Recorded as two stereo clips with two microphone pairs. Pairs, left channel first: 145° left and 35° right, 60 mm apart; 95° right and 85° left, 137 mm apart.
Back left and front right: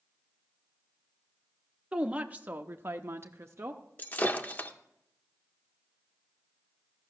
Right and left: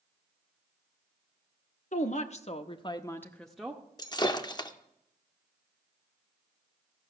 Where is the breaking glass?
155° right, 0.7 m.